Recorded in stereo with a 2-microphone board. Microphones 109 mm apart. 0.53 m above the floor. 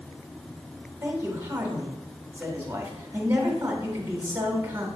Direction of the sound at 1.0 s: 20° right (ahead or behind).